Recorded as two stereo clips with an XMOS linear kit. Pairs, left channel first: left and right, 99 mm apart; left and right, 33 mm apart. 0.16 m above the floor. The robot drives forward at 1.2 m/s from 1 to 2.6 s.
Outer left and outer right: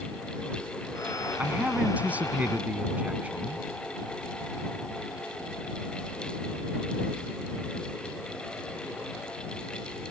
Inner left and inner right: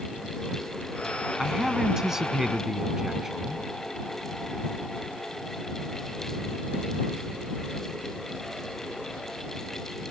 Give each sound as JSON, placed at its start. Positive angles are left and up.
{"t": 1.4, "sound": "a man speaking", "side_deg": -15}